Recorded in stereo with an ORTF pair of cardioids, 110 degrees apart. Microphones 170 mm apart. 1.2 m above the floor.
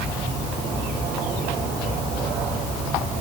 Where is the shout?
No shout in this recording.